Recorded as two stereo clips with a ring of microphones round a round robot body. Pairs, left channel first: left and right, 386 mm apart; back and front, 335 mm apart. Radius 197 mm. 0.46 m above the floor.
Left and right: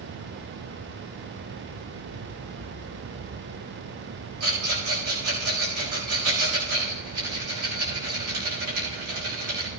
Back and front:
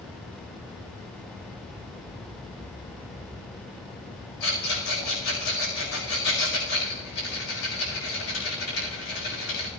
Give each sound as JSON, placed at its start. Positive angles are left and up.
{"t": 4.4, "sound": "a rattle", "azimuth_deg": -135, "distance_m": 7.0}